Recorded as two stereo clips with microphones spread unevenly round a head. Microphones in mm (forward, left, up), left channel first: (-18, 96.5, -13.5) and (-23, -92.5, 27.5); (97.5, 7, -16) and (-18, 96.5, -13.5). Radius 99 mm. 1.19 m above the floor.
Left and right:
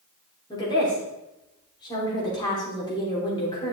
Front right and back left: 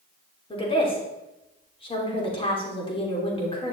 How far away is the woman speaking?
About 3.5 m.